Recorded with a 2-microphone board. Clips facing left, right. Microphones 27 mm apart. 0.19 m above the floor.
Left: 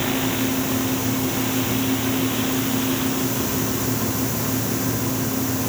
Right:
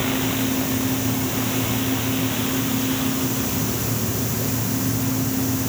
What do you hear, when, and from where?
Only background noise.